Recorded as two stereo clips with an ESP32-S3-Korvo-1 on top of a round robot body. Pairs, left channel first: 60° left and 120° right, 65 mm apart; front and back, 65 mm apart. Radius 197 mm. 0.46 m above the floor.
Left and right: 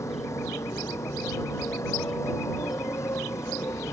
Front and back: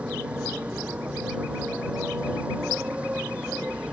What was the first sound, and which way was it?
A motorcycle, 105° left.